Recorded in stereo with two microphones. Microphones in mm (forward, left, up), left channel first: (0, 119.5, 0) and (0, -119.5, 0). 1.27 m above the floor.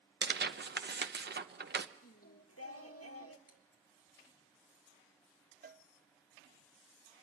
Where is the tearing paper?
45° right (ahead or behind), 0.9 m.